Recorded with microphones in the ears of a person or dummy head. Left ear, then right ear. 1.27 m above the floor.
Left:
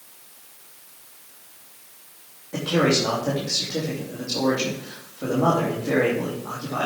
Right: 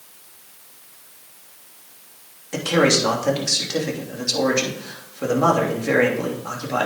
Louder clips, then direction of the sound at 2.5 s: Right 3 dB; 75° right (ahead or behind).